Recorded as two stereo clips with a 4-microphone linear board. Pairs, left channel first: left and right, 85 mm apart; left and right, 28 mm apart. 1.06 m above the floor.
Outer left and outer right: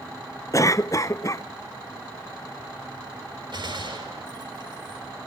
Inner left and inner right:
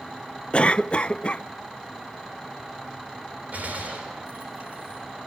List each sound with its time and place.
0.5 s a cough: 40° left (ahead or behind), 0.5 m
3.5 s a gunshot: 65° right (ahead or behind), 6 m